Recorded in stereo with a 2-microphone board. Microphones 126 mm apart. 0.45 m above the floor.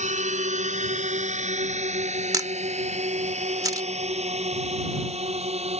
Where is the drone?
75° right (ahead or behind); by 5.8 s 60° right (ahead or behind).